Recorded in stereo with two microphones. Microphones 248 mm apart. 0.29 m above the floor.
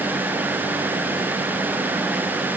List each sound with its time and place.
Only background noise.